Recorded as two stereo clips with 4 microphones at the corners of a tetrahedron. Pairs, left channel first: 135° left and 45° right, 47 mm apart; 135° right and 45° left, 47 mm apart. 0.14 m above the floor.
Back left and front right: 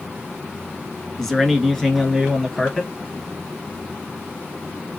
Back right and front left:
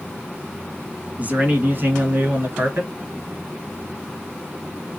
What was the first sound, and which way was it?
A man speaking, 55° left.